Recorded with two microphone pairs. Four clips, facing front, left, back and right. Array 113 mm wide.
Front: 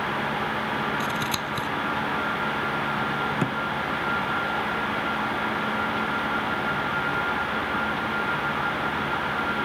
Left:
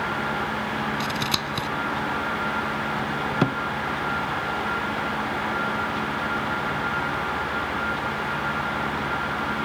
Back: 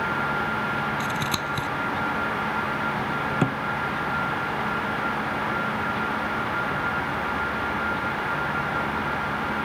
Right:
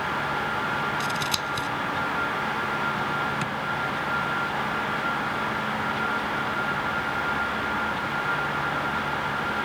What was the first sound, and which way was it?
Scissors, 100° left.